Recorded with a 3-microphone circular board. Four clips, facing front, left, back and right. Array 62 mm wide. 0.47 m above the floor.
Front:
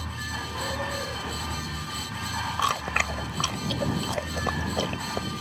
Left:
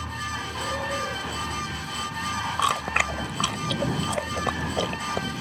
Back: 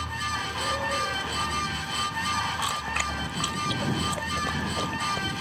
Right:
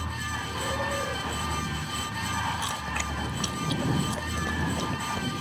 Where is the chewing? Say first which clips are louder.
Left 8 dB, front 3 dB; 60° left.